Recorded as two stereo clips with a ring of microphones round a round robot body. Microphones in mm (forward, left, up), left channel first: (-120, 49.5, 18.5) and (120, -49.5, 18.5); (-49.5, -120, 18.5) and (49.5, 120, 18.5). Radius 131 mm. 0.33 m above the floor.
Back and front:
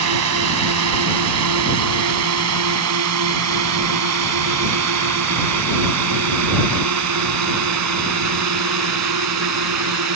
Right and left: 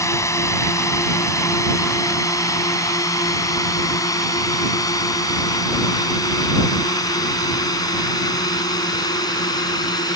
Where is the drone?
35° right.